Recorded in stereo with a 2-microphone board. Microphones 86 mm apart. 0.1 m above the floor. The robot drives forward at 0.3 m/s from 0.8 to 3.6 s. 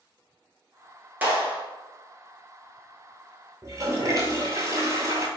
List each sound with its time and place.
1.2 s a clap: 20° right (ahead or behind), 1.5 m
3.6 s a toilet flushing: 35° right (ahead or behind), 1.0 m